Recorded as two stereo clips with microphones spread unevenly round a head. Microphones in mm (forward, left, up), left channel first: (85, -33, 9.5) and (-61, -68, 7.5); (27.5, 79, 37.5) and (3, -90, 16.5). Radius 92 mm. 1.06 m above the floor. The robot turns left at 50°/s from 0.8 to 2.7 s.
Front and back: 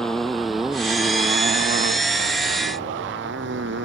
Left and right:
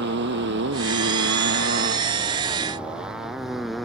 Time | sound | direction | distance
0.0 | a motorcycle | 75° right | ?